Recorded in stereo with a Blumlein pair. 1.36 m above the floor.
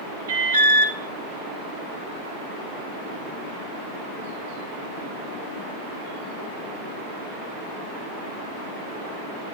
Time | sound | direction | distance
0.3 | an alarm | 65° right | 0.8 m